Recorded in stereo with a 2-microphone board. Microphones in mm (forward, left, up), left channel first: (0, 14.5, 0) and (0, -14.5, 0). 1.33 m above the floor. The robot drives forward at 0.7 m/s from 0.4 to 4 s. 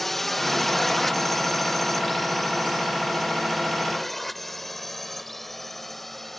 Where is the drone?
5° left (ahead or behind).